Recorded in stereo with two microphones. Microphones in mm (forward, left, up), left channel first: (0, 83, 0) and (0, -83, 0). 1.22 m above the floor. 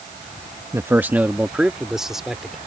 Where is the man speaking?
15° right (ahead or behind); by 2.6 s centre (ahead or behind).